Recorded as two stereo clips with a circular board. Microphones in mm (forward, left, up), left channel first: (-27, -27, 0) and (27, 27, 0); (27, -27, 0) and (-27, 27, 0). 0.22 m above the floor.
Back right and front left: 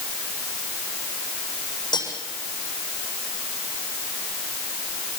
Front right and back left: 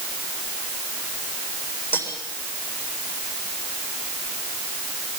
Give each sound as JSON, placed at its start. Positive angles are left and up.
{"t": 1.9, "sound": "cutlery clinking", "azimuth_deg": -105, "distance_m": 7.5}